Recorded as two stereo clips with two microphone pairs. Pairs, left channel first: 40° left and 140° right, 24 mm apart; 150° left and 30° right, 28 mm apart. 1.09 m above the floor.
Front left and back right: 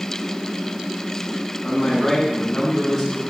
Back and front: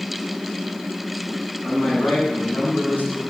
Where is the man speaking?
130° left, 8.5 m; by 3.2 s 135° left, 7.5 m.